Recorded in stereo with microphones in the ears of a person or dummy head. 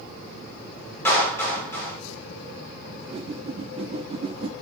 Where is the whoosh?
35° right (ahead or behind), 0.7 m.